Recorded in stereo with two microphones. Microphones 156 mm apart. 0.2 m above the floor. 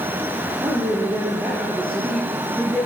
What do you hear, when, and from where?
0.6 s a woman speaking: 25° right (ahead or behind), 5.5 m; by 2.9 s 10° left (ahead or behind), 5 m